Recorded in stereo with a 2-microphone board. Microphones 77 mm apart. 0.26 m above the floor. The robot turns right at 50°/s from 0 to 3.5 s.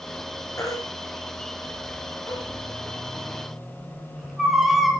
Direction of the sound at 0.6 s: 35° left (ahead or behind).